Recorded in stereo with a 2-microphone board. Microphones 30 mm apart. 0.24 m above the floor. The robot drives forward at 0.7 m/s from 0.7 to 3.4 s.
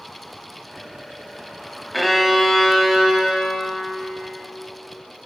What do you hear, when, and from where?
1.9 s a violin: centre (ahead or behind), 0.6 m